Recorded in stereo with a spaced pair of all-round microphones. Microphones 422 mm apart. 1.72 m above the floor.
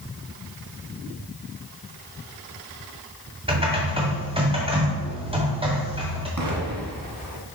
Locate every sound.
3.5 s typing on a keyboard: 15° right (ahead or behind), 1.8 m
6.4 s an explosion: 50° right (ahead or behind), 1.5 m